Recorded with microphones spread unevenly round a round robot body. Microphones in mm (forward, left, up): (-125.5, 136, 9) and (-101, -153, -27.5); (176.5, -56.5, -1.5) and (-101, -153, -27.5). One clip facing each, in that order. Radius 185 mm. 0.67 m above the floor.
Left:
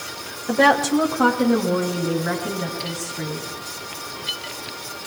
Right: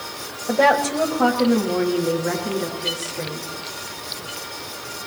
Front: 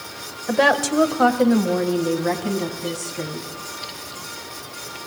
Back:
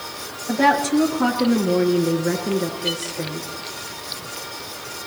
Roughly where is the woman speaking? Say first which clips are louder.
Left 1 dB, back 1 dB; ahead left.